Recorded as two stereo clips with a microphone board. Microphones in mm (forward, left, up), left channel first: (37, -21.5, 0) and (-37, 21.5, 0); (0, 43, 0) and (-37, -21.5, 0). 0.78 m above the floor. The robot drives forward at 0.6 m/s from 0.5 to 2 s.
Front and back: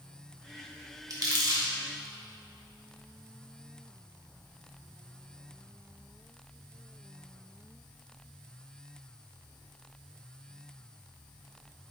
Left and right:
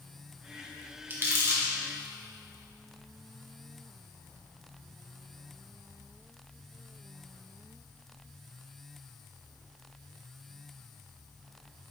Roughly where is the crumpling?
Behind.